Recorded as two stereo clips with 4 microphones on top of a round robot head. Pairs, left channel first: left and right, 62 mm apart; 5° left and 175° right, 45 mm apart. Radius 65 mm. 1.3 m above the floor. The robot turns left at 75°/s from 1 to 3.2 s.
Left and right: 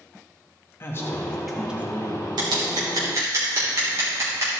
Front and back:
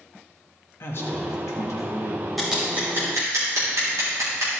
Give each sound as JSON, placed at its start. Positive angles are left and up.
{"t": 0.8, "sound": "a man speaking", "azimuth_deg": 35, "distance_m": 1.6}
{"t": 2.4, "sound": "scissors", "azimuth_deg": -85, "distance_m": 3.0}